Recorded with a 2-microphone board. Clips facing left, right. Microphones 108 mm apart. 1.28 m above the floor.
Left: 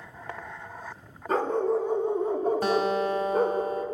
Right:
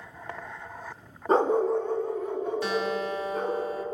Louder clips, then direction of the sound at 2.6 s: Left 4 dB; 50° left (ahead or behind).